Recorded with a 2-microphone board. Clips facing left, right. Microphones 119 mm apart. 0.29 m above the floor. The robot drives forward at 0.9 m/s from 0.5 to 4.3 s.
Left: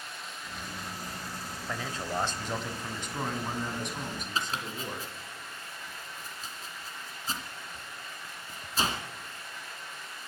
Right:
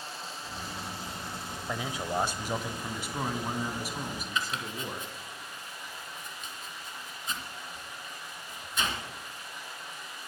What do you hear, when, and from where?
0.0 s running water: 30° right (ahead or behind), 3.5 m; by 10.3 s 15° right (ahead or behind), 6.5 m
1.7 s a man speaking: 15° right (ahead or behind), 0.9 m; by 5.1 s 5° right (ahead or behind), 2.5 m
4.3 s chopping: 35° left (ahead or behind), 2 m